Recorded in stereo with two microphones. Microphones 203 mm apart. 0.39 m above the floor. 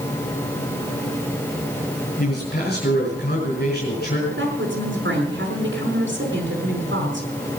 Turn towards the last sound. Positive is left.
turn(degrees=-70)  # may be behind; listen again after turning